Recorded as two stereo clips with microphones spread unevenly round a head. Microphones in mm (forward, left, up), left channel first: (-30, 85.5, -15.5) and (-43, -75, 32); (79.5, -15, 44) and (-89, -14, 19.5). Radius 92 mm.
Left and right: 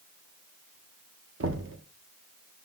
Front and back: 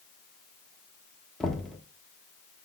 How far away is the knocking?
About 1.3 m.